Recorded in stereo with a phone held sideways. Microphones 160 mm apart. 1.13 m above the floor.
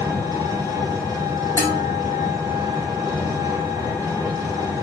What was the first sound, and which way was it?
An engine running, 25° right (ahead or behind).